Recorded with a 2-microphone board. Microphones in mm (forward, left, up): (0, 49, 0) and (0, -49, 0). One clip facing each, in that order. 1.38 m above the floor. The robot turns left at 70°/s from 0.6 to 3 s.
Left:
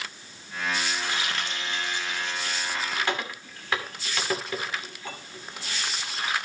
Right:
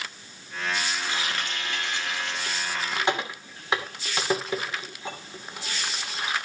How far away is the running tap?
About 2.5 m.